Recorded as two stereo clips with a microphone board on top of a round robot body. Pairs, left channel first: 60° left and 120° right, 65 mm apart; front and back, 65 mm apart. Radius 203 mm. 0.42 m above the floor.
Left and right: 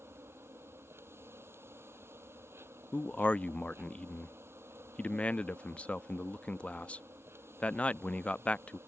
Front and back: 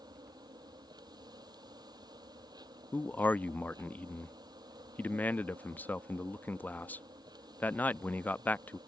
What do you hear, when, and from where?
0.0 s an insect: 175° right
2.9 s a man speaking: 15° left